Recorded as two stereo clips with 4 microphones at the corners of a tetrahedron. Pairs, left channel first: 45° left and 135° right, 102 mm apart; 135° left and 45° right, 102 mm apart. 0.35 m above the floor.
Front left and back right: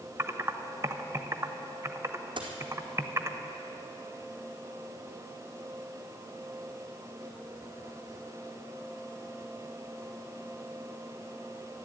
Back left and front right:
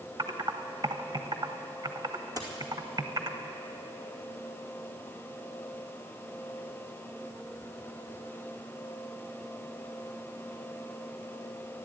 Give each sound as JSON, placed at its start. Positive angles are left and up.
{"t": 0.2, "sound": "typing on a keyboard", "azimuth_deg": -80, "distance_m": 0.7}
{"t": 2.4, "sound": "a dropped coin", "azimuth_deg": -95, "distance_m": 2.5}